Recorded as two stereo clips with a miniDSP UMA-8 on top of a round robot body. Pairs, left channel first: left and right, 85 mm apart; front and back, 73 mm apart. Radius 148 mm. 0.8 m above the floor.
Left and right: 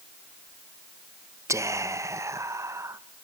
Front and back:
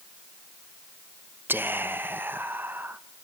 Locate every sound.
1.5 s whispering: 125° right, 1.1 m